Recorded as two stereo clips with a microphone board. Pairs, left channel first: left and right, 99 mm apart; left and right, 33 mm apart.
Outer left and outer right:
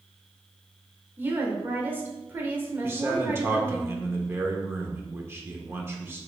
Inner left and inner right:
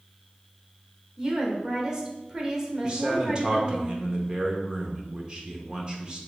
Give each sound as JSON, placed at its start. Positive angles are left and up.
{"t": 1.2, "sound": "a woman speaking", "side_deg": -20, "distance_m": 1.0}
{"t": 2.8, "sound": "a man speaking", "side_deg": -25, "distance_m": 0.8}